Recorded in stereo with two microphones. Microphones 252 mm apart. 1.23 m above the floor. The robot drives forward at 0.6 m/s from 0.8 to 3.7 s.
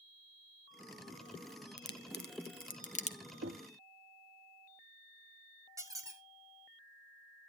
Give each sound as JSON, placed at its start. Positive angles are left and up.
{"t": 1.8, "sound": "a crack", "side_deg": 45, "distance_m": 0.6}
{"t": 3.4, "sound": "knocking", "side_deg": -60, "distance_m": 0.6}
{"t": 5.8, "sound": "a squeak", "side_deg": -15, "distance_m": 1.3}